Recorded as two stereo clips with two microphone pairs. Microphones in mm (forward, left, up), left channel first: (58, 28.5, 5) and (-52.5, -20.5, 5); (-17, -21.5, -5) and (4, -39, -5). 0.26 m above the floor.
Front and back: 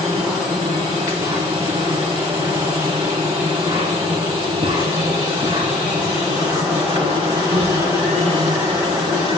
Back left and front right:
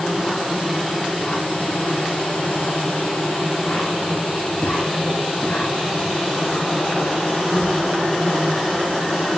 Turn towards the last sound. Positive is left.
turn(degrees=160)